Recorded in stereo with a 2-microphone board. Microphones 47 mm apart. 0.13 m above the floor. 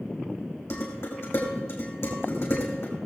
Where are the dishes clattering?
60° left (ahead or behind), 4.5 m.